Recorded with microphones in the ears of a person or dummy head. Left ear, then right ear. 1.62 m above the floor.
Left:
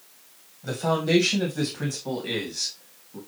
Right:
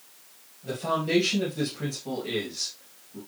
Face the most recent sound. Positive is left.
turn(degrees=30)  # may be behind; listen again after turning